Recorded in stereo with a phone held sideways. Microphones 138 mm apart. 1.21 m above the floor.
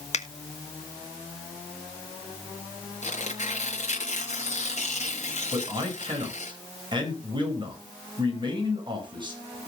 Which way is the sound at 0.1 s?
55° left (ahead or behind).